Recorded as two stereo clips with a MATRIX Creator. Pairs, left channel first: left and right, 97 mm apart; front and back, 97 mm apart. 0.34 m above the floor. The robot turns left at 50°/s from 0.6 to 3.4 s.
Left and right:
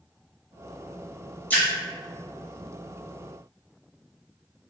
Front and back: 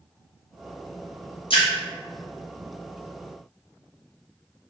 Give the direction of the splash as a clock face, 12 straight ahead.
11 o'clock.